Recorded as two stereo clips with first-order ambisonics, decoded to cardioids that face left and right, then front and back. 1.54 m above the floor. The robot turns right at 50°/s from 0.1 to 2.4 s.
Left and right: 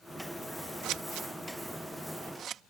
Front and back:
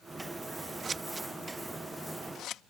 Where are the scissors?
115° right; by 2.6 s 40° right.